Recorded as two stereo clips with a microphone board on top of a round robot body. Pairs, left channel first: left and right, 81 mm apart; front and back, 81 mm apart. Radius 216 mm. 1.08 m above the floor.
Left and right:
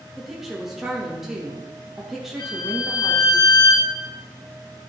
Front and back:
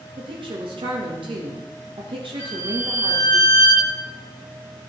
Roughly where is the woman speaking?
Behind.